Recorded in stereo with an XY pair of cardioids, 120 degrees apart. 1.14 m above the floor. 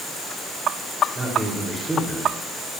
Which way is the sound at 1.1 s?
20° right.